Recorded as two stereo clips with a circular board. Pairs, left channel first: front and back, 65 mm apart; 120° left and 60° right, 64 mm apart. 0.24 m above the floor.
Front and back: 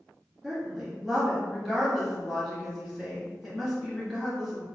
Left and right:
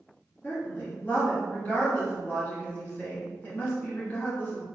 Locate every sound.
0.4 s a woman speaking: 90° left, 1.6 m